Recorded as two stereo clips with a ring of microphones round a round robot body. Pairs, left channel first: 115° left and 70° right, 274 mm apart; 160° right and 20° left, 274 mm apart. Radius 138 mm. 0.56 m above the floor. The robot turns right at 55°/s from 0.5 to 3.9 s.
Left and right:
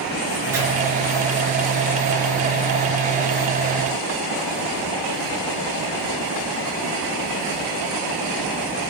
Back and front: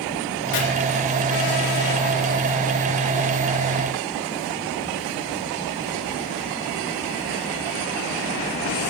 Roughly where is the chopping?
Behind right.